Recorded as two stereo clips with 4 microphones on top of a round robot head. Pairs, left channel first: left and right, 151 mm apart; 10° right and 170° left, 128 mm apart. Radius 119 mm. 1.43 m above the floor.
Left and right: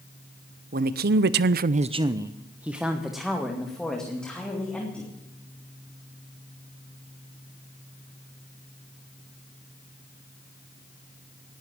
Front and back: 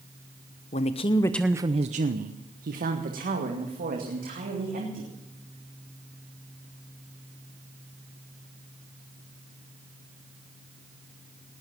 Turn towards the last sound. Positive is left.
turn(degrees=175)